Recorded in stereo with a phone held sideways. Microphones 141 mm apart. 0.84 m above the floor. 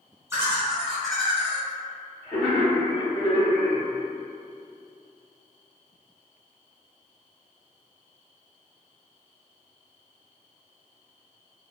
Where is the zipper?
I don't hear a zipper.